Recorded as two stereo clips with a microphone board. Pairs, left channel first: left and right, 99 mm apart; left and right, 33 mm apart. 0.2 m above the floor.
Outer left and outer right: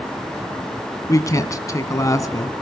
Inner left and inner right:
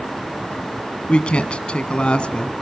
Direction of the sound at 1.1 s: 40° left (ahead or behind).